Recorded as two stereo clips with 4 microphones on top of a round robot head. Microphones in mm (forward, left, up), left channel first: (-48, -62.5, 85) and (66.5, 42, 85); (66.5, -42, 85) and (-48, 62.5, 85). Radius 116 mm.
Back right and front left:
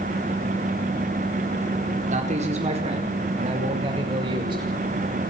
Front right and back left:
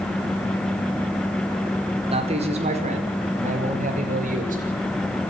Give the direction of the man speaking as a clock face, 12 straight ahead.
9 o'clock.